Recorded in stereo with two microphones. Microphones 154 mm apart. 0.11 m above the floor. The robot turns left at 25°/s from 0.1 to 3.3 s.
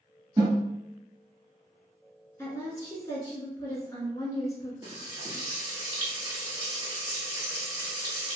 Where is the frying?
20° right (ahead or behind), 1.7 m.